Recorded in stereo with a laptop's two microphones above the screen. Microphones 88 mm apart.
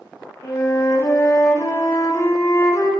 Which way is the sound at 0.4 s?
35° left (ahead or behind).